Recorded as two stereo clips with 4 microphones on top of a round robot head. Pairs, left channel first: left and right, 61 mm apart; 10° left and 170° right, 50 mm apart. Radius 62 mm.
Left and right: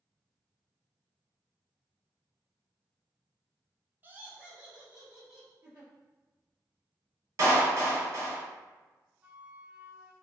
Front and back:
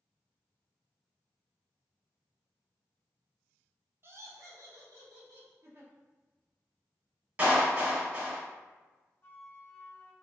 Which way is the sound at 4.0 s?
145° right.